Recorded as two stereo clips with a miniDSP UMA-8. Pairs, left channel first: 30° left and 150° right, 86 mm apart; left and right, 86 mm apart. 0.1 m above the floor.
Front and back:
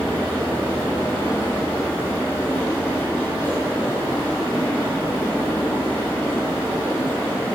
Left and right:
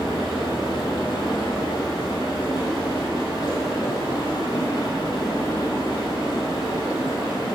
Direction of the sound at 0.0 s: 100° left.